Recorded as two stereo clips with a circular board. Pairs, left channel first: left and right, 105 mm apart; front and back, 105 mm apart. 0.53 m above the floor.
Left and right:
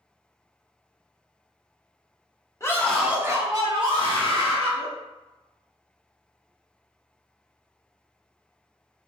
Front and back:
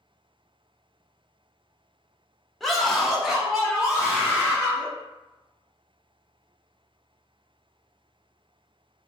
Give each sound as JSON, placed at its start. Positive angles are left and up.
{"t": 2.6, "sound": "a scream", "azimuth_deg": 85, "distance_m": 1.0}